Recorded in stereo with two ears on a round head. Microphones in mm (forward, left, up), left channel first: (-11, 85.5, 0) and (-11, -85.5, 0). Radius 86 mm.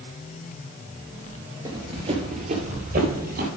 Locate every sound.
1.6 s running footsteps: 25° right (ahead or behind), 1.7 m; by 3.5 s 55° right (ahead or behind), 3 m